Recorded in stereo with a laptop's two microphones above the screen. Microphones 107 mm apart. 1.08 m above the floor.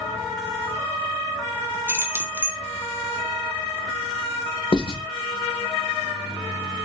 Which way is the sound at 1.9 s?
20° right (ahead or behind).